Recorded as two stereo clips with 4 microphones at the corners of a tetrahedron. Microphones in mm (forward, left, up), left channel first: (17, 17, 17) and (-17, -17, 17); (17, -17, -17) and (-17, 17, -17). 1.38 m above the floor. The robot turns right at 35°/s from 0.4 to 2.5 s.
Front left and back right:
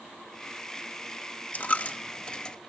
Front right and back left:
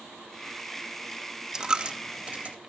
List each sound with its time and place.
1.5 s a dropped coin: 70° left, 0.8 m; by 2.6 s 105° left, 0.8 m